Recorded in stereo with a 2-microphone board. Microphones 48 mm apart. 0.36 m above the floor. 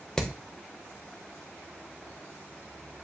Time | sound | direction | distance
0.2 | hammering | 10° left (ahead or behind) | 0.6 m